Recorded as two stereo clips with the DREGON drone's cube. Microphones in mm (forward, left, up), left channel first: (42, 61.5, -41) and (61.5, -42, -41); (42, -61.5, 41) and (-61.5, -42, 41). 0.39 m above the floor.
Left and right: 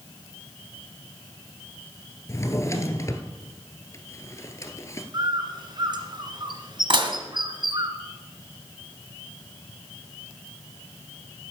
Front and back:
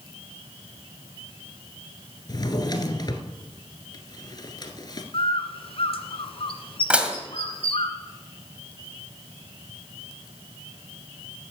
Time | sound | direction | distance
2.3 | a drawer | 40° left | 1.6 m
5.1 | a bird | 35° right | 1.9 m
6.9 | dishes clattering | 110° right | 1.9 m